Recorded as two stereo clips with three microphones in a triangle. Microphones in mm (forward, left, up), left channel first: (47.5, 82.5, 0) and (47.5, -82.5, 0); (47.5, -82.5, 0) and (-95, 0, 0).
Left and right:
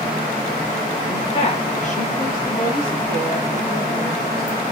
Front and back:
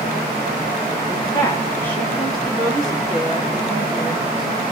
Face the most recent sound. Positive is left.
turn(degrees=70)